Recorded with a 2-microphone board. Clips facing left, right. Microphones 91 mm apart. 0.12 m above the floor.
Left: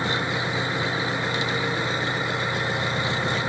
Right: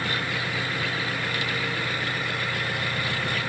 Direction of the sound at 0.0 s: 20° left (ahead or behind).